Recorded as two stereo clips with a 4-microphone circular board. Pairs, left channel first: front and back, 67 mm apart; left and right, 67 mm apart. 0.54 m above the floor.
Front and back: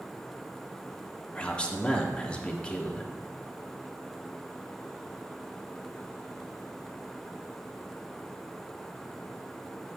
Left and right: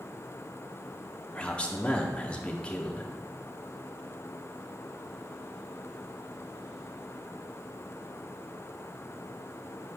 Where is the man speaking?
45° left, 0.7 m.